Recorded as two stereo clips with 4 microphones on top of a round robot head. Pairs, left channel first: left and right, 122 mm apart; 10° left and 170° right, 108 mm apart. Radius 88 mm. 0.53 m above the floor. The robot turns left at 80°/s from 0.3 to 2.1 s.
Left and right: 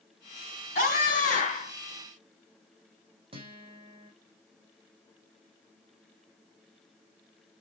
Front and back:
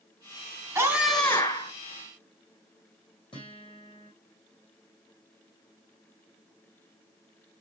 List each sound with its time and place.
0.8 s a scream: 125° left, 4 m; by 1.7 s 45° left, 4 m
3.3 s a guitar: 45° right, 4.5 m